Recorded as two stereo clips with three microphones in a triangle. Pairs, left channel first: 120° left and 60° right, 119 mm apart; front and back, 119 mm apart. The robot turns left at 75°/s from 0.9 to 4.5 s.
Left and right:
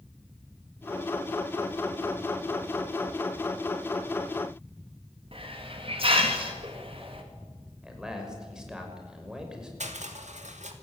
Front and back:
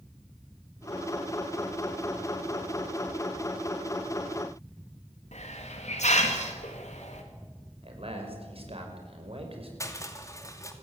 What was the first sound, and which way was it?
A hiss, 20° right.